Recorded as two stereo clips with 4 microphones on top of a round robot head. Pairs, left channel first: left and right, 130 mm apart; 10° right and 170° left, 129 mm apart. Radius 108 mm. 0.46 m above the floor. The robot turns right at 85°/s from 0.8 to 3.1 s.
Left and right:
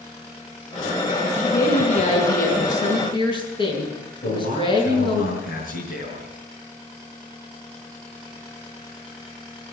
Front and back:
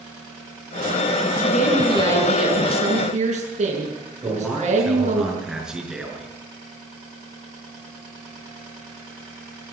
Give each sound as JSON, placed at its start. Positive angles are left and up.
{"t": 1.4, "sound": "a woman speaking", "azimuth_deg": -5, "distance_m": 6.5}
{"t": 4.2, "sound": "a man speaking", "azimuth_deg": 85, "distance_m": 6.0}